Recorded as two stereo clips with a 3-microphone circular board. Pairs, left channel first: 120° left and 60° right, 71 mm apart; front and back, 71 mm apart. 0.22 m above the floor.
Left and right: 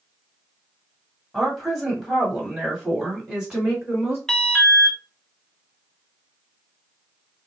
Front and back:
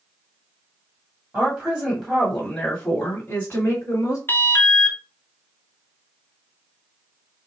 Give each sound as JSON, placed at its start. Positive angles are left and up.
{"t": 1.3, "sound": "a woman speaking", "azimuth_deg": -155, "distance_m": 1.5}
{"t": 4.3, "sound": "an alarm", "azimuth_deg": 40, "distance_m": 0.9}